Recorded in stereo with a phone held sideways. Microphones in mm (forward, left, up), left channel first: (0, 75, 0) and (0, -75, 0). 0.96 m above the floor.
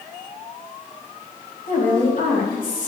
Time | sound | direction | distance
1.7 | a woman speaking | 70° left (ahead or behind) | 5.5 m